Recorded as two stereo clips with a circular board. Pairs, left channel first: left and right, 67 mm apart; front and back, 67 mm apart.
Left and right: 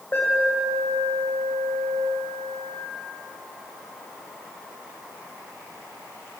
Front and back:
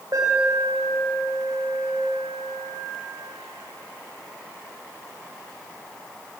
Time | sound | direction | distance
0.1 | an alarm | 145° left | 8.5 m